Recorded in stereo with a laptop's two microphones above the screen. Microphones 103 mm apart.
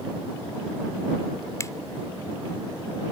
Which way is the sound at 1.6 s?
30° left (ahead or behind).